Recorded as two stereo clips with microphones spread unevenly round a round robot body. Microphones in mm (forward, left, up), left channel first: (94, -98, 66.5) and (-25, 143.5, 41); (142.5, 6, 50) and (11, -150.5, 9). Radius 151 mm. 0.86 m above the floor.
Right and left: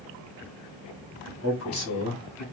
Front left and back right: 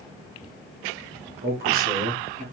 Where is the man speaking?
105° right, 2 m; by 2.4 s 85° right, 2.5 m.